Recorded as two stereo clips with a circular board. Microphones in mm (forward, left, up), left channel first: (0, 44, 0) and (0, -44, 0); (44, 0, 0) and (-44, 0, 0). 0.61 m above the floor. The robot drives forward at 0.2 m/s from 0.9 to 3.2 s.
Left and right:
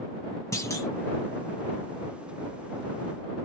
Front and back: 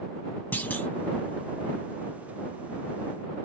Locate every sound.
0.5 s a clunk: 60° left, 0.5 m